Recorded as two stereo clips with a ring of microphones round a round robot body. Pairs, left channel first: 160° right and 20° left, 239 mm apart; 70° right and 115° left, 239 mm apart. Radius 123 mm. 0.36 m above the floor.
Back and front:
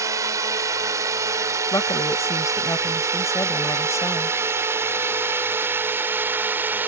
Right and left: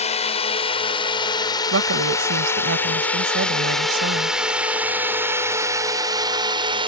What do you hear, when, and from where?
0.0 s a drone: 40° right; by 6.9 s 90° left
1.7 s a woman speaking: 125° left